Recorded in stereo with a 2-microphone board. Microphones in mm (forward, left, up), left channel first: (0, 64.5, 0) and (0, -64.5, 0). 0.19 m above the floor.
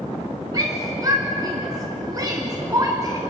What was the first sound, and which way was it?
A shout, 30° right (ahead or behind).